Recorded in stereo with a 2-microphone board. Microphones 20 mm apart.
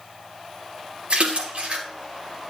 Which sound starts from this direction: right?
A splash, at 1.1 s.